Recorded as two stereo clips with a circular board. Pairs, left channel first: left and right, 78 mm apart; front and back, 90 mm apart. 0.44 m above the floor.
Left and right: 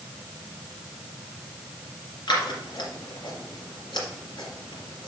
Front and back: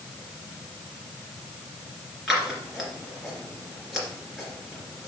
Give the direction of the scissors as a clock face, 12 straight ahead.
9 o'clock.